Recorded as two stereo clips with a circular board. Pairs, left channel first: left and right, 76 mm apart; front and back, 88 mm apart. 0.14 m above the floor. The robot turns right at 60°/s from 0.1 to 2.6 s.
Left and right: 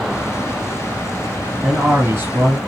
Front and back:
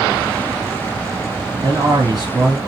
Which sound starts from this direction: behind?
A man speaking, at 1.6 s.